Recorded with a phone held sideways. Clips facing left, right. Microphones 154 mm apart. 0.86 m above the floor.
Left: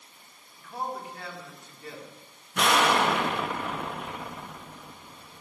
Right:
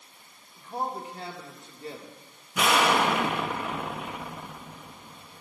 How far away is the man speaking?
About 1.7 m.